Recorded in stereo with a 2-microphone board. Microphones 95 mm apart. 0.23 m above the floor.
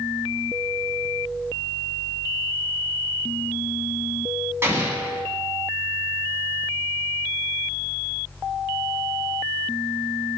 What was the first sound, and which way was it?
An explosion, 25° right (ahead or behind).